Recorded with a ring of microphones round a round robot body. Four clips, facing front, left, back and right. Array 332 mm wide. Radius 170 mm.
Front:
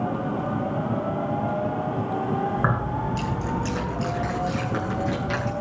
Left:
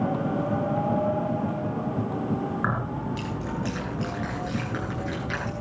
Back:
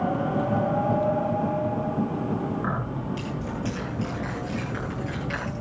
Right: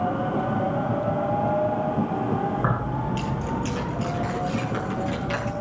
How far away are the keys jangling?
About 9.5 m.